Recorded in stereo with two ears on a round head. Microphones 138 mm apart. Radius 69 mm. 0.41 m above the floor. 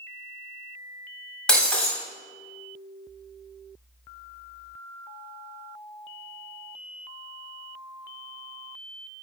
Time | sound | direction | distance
1.5 | breaking glass | 5° left (ahead or behind) | 1.5 m